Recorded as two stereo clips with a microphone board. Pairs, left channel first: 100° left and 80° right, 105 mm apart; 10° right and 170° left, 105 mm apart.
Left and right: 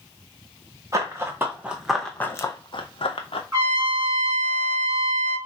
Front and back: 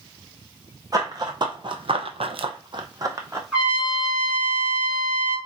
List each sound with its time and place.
0.9 s running footsteps: 135° right, 0.9 m; by 3.4 s 110° left, 0.7 m
3.5 s a trumpet: 120° right, 1.6 m